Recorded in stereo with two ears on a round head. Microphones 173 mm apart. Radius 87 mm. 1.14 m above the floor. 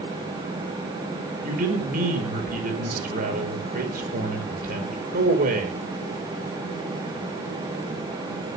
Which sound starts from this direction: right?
A man speaking, at 1.4 s.